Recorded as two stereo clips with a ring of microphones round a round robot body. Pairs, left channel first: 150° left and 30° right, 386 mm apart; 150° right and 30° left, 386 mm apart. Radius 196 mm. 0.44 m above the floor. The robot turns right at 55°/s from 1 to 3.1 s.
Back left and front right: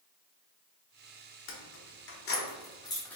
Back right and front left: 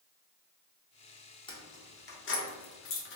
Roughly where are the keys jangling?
Behind left.